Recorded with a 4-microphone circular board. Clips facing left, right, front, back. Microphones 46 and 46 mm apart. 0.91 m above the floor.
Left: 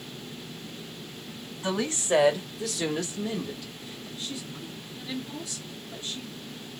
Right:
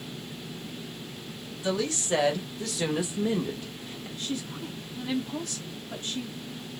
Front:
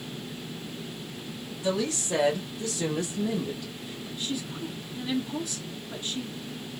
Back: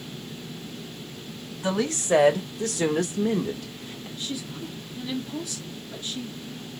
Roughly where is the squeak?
No squeak in this recording.